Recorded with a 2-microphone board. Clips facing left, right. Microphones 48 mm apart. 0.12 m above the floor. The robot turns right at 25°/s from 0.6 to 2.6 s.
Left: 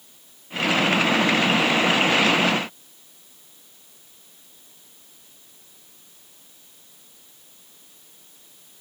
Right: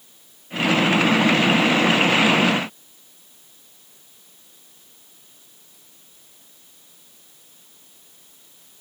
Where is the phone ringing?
No phone ringing in this recording.